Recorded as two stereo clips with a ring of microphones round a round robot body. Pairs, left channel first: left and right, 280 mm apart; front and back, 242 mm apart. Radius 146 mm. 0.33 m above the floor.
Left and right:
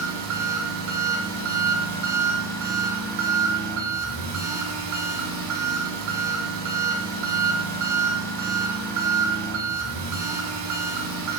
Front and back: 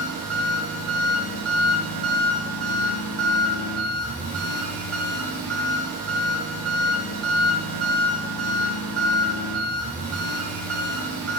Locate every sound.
0.0 s an engine running: 85° right, 1.0 m